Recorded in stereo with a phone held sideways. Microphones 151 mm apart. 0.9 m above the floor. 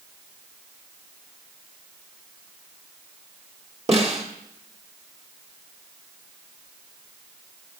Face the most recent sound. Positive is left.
turn(degrees=-45)  # may be behind; listen again after turning